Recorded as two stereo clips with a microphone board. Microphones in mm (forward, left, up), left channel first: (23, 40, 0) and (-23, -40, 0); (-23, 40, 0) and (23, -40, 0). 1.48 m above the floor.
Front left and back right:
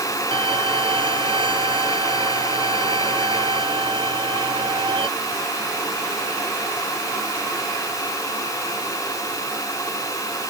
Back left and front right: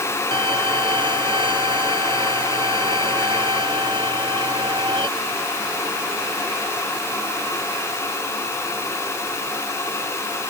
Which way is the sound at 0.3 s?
90° right.